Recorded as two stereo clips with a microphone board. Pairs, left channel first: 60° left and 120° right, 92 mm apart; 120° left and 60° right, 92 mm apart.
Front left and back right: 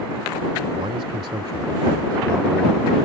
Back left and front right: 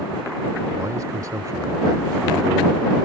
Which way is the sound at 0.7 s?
110° right.